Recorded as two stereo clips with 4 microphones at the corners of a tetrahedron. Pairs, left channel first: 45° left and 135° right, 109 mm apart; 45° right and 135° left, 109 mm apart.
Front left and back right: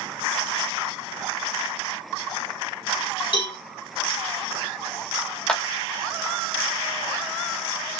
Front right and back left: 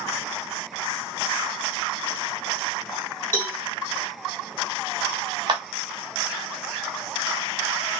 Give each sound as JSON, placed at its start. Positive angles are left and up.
{"t": 3.3, "sound": "a cowbell", "azimuth_deg": 25, "distance_m": 2.5}
{"t": 5.5, "sound": "a clap", "azimuth_deg": 125, "distance_m": 0.9}